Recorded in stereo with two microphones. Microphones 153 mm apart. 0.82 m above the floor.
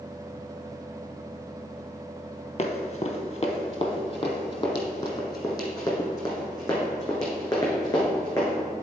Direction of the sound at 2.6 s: 45° left (ahead or behind).